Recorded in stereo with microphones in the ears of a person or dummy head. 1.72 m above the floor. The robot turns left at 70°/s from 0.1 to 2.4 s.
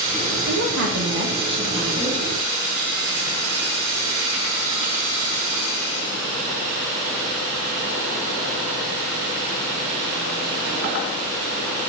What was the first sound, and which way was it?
A woman speaking, 65° right.